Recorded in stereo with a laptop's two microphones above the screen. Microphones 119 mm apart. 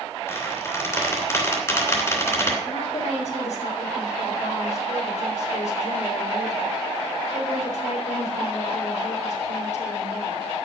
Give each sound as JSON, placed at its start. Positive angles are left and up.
{"t": 0.3, "sound": "a squeak", "side_deg": 25, "distance_m": 2.5}
{"t": 2.6, "sound": "a woman speaking", "side_deg": 85, "distance_m": 4.0}